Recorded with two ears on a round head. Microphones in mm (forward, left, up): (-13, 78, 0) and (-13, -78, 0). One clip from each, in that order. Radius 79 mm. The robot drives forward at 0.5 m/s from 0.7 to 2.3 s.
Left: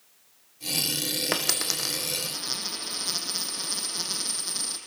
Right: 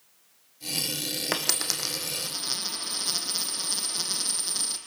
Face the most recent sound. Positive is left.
turn(degrees=-10)  # may be behind; listen again after turning